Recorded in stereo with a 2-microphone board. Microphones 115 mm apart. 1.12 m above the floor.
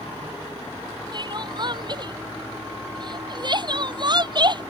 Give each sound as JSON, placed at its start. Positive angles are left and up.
{"t": 1.1, "sound": "crying", "side_deg": -40}